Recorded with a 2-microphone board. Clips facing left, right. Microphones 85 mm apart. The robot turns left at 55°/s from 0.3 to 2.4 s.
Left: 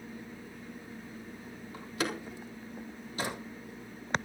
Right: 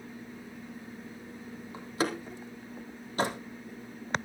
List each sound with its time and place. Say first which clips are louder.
1.7 s a door slam: right 3 dB; 20° right (ahead or behind), 3.5 m; by 4.2 s 50° right (ahead or behind), 3.5 m